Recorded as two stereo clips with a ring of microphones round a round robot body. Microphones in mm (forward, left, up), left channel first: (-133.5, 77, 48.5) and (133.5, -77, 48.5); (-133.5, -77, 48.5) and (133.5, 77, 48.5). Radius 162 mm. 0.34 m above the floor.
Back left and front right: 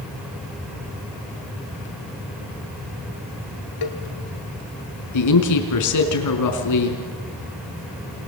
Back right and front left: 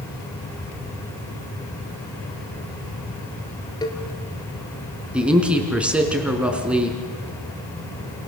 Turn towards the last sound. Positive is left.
turn(degrees=115)